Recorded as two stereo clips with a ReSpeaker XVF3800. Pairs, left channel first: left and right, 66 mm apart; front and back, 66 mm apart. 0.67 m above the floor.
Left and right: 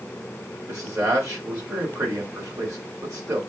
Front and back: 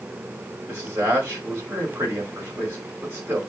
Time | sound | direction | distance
0.7 | a man speaking | 120° right | 2.5 m